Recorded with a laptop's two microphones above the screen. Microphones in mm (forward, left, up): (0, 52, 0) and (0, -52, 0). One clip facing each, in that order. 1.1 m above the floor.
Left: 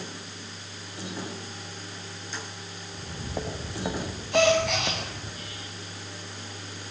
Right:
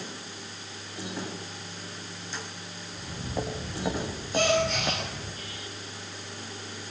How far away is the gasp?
About 8.5 m.